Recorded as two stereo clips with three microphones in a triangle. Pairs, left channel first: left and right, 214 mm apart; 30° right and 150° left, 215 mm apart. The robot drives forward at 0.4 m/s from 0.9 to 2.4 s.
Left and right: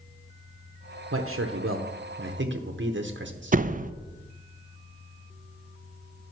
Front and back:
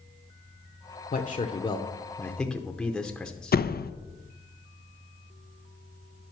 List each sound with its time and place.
1.1 s a man speaking: 80° right, 0.8 m; by 3.6 s 115° right, 0.8 m
3.5 s a door slam: 50° right, 0.5 m